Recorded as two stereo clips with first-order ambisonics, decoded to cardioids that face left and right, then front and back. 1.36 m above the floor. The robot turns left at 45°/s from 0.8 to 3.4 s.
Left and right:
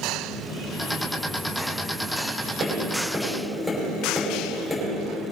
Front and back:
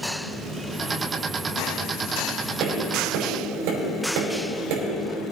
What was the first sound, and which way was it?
Tapping, 145° right.